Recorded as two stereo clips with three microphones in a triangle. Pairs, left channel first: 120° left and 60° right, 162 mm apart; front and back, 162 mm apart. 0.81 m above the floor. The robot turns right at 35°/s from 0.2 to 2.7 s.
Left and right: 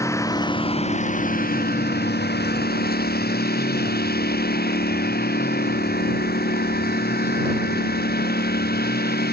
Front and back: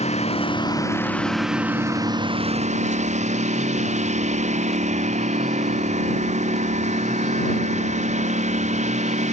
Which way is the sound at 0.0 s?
50° left.